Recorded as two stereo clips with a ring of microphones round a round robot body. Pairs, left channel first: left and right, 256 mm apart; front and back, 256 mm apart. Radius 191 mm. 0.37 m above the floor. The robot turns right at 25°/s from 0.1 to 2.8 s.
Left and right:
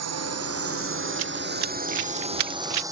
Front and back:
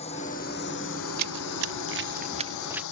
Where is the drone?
75° right; by 2.9 s 15° right.